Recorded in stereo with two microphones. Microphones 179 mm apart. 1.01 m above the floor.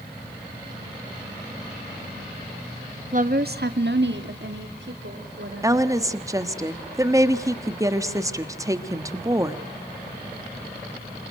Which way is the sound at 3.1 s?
45° right (ahead or behind).